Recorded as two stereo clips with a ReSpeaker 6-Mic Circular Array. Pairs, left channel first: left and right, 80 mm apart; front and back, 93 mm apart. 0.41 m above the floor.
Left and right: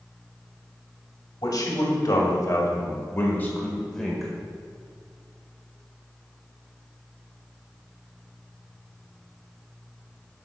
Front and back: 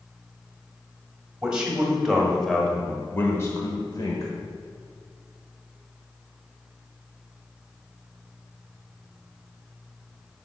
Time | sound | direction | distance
1.4 | a man speaking | 100° left | 2 m